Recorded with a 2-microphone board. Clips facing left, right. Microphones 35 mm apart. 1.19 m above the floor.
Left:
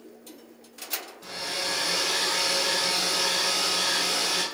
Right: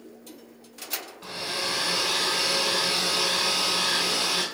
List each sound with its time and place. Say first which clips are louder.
1.2 s a hair dryer: right 1 dB; 20° right (ahead or behind), 4.5 m